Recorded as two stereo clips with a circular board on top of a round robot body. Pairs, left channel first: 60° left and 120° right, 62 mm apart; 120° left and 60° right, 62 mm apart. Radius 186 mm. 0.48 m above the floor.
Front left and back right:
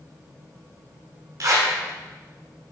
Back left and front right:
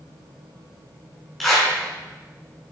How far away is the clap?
About 7.5 m.